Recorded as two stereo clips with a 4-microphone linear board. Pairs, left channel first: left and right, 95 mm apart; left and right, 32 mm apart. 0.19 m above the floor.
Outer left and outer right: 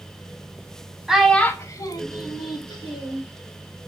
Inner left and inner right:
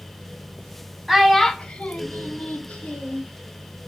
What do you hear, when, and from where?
1.1 s a child speaking: 5° right (ahead or behind), 0.6 m; by 3.2 s 55° left (ahead or behind), 1.6 m